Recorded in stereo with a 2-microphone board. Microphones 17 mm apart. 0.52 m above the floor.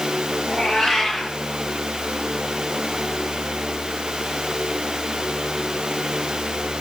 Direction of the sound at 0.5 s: 40° left (ahead or behind).